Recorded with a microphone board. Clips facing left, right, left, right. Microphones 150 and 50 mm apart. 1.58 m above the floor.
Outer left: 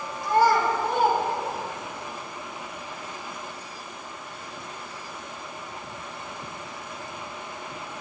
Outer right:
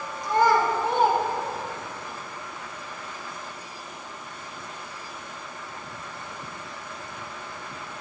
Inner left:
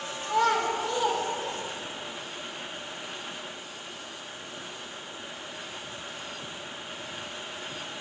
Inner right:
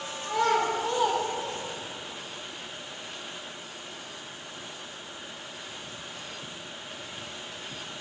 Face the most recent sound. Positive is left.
turn(degrees=-35)  # may be behind; listen again after turning